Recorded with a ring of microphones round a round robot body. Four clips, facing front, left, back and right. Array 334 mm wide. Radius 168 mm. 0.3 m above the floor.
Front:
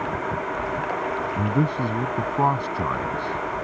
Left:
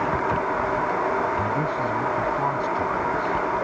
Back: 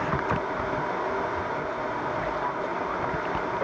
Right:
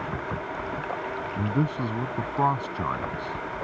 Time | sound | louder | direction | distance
1.4 | a man speaking | left 3 dB, front 6 dB | 25° right | ?